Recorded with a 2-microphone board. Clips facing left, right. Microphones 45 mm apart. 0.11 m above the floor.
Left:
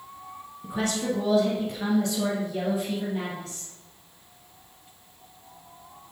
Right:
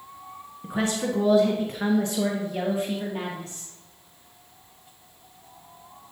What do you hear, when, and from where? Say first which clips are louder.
0.6 s a woman speaking: right 1 dB; 25° right (ahead or behind), 1.2 m